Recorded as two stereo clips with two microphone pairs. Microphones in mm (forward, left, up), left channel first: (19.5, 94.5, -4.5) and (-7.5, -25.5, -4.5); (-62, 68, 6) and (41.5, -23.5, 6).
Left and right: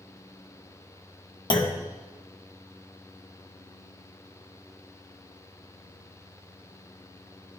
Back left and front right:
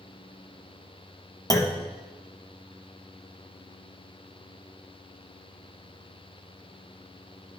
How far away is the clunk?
About 0.8 m.